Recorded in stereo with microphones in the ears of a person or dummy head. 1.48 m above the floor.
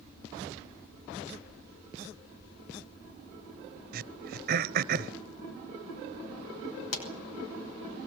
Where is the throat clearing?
55° right (ahead or behind), 0.8 m.